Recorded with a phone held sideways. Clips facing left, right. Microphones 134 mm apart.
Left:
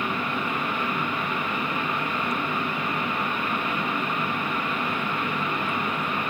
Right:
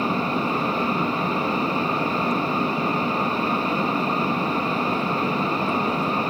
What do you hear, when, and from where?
0.0 s a fan: 35° right (ahead or behind), 0.8 m